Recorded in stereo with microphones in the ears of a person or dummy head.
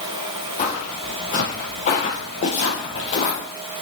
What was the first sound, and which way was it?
Footsteps, 45° left (ahead or behind).